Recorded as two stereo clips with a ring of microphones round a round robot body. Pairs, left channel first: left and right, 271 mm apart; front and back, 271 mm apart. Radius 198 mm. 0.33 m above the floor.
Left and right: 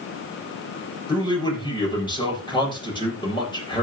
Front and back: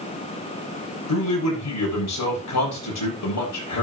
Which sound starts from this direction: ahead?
A man speaking, at 1.1 s.